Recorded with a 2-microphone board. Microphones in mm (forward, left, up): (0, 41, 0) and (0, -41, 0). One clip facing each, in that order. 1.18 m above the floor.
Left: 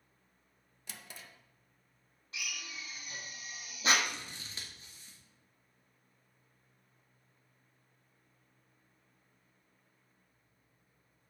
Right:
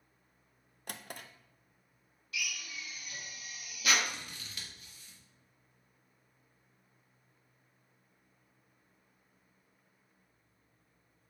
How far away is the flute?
No flute in this recording.